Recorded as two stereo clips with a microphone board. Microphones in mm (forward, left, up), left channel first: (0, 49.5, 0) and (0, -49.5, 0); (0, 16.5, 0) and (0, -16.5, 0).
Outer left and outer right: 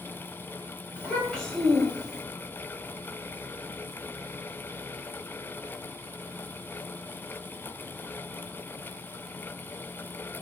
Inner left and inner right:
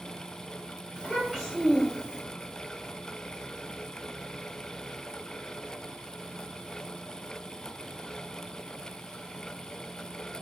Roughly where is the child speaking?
Centre.